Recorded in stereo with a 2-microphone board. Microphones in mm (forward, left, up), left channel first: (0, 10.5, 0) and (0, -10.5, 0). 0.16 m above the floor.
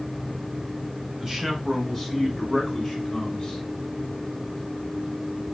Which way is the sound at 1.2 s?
15° right (ahead or behind).